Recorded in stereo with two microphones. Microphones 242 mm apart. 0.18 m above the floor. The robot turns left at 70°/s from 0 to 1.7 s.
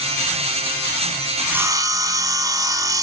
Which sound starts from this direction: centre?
Sawing, at 1.4 s.